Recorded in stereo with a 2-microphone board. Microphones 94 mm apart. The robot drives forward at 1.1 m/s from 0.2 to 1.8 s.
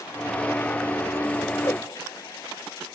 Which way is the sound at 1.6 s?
30° left (ahead or behind).